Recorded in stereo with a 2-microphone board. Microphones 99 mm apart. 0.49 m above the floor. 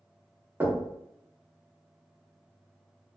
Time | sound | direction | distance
0.6 | knocking | 20° right (ahead or behind) | 0.7 m